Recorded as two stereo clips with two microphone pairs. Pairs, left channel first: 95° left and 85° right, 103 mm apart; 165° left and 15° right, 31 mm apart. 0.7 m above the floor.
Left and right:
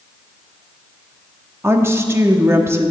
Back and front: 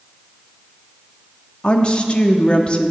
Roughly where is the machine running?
I don't hear a machine running.